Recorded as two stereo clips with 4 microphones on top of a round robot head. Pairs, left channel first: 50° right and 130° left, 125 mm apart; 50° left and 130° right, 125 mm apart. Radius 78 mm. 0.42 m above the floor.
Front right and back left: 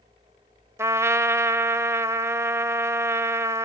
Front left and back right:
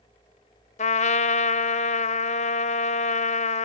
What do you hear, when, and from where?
0.8 s a trumpet: 65° left, 1.0 m